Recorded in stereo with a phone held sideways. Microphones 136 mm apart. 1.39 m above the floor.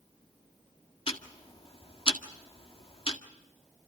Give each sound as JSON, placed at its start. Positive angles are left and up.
{"t": 1.1, "sound": "ticking", "side_deg": 40, "distance_m": 1.7}